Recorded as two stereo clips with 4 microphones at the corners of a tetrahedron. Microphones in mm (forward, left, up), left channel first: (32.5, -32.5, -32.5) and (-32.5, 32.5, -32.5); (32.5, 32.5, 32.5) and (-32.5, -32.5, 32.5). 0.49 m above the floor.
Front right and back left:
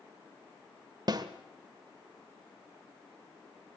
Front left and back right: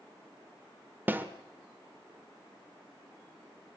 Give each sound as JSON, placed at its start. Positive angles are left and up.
{"t": 1.1, "sound": "a snare drum", "azimuth_deg": 160, "distance_m": 1.5}